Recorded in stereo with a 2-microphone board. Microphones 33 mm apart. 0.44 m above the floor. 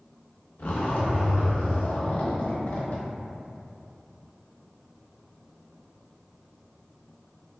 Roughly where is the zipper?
Left.